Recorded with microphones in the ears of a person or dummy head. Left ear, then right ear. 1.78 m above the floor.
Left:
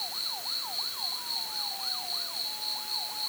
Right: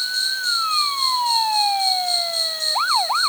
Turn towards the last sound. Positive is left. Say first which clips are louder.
# right 12 dB
turn(degrees=-55)  # may be behind; listen again after turning